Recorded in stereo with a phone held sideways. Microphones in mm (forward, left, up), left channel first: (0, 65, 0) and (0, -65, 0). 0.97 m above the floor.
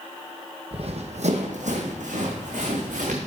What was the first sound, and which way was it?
Running footsteps, 50° right (ahead or behind).